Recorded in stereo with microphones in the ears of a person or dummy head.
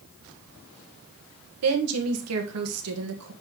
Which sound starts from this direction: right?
A woman speaking, at 1.6 s.